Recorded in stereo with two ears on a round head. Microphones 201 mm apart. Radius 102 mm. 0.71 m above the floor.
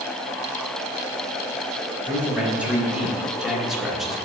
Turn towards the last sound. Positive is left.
turn(degrees=0)  # may be behind; listen again after turning